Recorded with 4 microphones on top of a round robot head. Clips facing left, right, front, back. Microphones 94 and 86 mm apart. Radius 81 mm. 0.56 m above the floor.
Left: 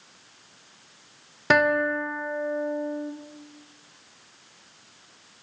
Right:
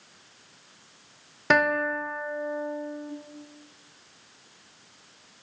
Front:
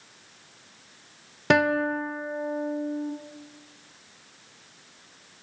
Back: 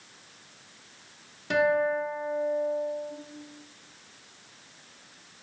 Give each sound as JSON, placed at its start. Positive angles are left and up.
{"t": 1.5, "sound": "a guitar", "azimuth_deg": 0, "distance_m": 0.6}